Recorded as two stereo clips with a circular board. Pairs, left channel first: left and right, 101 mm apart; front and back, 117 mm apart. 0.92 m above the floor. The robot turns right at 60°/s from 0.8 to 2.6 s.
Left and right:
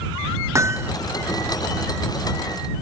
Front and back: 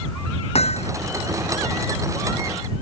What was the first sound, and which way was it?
Hammering, 30° right.